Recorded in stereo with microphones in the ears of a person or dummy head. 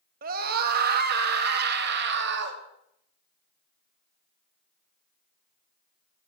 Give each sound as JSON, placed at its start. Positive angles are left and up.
{"t": 0.2, "sound": "a scream", "side_deg": -60, "distance_m": 3.0}